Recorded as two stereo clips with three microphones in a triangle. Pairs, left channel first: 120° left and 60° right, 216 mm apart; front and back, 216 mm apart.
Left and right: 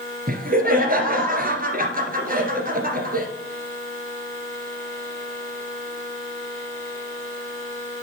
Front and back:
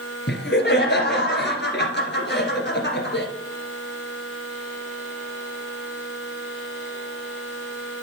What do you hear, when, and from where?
0.3 s laughter: 20° right, 2.0 m